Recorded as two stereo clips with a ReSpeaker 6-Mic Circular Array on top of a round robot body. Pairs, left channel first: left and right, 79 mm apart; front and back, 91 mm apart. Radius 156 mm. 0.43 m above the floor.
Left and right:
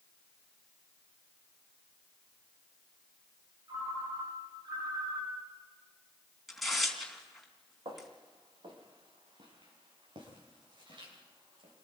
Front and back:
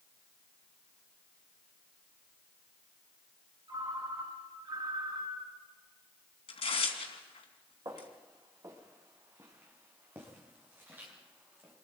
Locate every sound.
3.7 s a ringtone: 135° right, 3 m
6.5 s tearing paper: straight ahead, 3 m
7.8 s footsteps: 125° right, 4 m; by 11.7 s 105° right, 9 m